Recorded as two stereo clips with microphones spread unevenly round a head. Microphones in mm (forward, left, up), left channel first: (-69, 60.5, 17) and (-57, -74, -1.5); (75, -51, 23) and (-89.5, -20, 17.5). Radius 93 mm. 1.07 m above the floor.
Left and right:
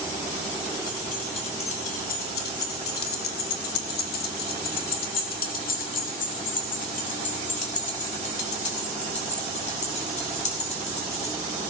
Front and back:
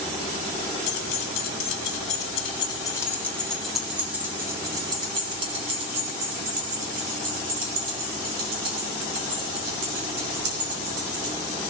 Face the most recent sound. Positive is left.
turn(degrees=135)